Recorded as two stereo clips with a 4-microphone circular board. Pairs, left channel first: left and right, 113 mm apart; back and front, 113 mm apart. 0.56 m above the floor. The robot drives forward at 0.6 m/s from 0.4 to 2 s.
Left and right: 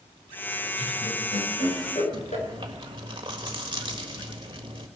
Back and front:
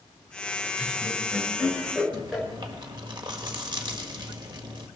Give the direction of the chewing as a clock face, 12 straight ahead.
2 o'clock.